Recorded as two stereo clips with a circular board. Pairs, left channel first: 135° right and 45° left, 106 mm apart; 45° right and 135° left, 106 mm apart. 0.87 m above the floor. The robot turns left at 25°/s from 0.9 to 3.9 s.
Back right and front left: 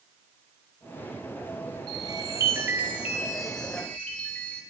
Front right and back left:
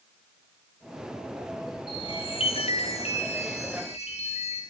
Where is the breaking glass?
No breaking glass in this recording.